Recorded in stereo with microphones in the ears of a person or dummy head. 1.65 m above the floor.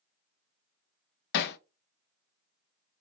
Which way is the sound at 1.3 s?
65° left (ahead or behind).